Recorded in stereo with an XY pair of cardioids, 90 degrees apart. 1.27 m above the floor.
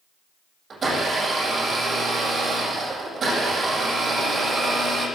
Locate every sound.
0.7 s a blender: 45° right, 8 m